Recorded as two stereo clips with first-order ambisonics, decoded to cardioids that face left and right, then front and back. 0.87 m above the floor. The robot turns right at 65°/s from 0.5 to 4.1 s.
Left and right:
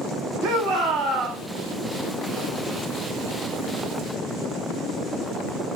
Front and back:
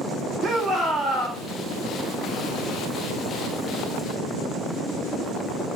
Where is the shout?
105° right, 2.5 m; by 1.4 s 45° right, 2.5 m.